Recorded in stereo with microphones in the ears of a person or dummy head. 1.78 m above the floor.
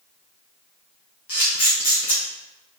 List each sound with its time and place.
1.3 s a camera shutter: 30° left (ahead or behind), 1.0 m